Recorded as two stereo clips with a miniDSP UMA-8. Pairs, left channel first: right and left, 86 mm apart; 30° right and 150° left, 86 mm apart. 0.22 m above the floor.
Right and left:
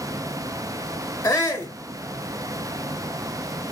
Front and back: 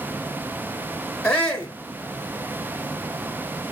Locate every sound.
1.2 s a shout: 100° right, 1.3 m